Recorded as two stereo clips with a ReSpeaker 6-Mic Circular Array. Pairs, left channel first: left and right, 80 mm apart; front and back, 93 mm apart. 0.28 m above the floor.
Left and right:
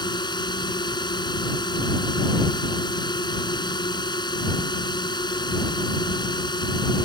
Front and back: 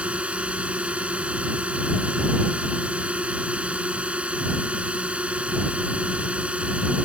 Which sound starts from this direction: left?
A drone, at 0.0 s.